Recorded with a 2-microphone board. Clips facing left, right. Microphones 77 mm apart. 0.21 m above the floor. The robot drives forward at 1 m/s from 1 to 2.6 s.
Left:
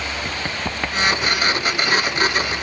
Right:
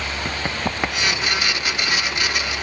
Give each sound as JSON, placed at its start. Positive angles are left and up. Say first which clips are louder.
{"t": 0.2, "sound": "running footsteps", "louder": "right 1 dB", "side_deg": -15}